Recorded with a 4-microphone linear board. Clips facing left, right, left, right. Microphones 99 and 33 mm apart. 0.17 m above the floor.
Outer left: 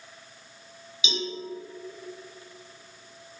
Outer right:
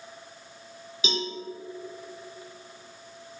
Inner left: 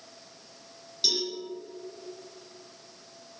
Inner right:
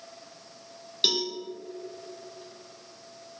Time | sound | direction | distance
1.0 | a cowbell | 45° right (ahead or behind) | 2 m